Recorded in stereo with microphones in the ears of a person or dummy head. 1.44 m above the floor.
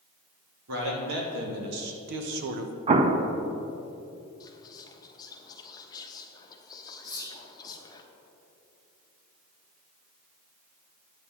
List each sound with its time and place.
0.7 s a man speaking: 80° right, 2 m; by 2.8 s 55° right (ahead or behind), 0.7 m
2.9 s an explosion: 30° right (ahead or behind), 0.5 m
4.4 s whispering: 25° left (ahead or behind), 1.2 m
7.0 s whispering: 25° right (ahead or behind), 1.5 m